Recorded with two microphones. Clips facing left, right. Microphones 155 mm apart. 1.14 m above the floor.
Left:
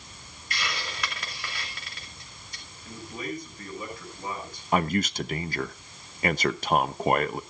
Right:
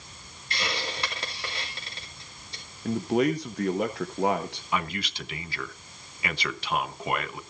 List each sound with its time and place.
0.5 s a hiss: 30° right (ahead or behind), 2.5 m
2.9 s a man speaking: 75° right (ahead or behind), 1.2 m
4.7 s a man speaking: 45° left (ahead or behind), 0.8 m